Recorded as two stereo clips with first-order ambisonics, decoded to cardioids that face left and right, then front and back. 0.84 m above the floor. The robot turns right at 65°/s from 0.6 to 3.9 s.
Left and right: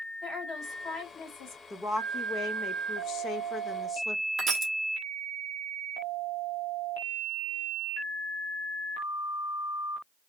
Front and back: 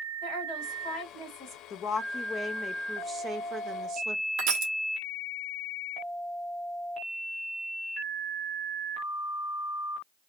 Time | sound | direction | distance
0.2 | a woman speaking | straight ahead | 2.5 m
1.7 | a woman speaking | 20° left | 0.5 m
4.4 | crushing | 160° right | 0.9 m